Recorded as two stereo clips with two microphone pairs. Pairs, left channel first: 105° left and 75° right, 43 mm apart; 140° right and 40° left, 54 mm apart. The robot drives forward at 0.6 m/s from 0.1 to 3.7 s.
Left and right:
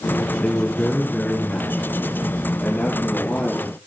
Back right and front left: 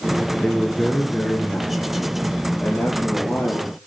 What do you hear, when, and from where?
0.4 s a man speaking: 150° left, 1.5 m; by 3.9 s 170° left, 3 m